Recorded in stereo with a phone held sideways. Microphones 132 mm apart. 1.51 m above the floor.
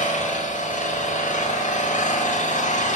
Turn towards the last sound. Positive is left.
turn(degrees=80)